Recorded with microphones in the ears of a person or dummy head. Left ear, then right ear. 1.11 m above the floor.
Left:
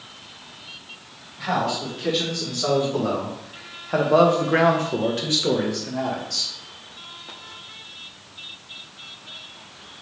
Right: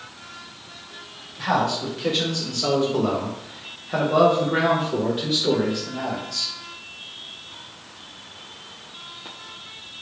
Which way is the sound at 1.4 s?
20° right (ahead or behind).